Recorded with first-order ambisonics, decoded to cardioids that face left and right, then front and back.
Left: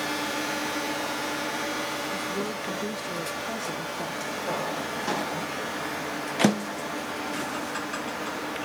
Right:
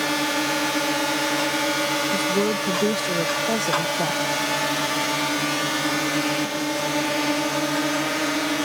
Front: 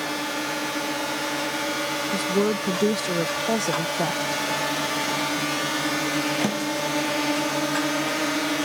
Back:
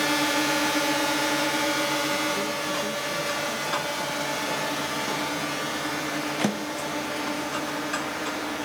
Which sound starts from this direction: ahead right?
A woman speaking, at 2.1 s.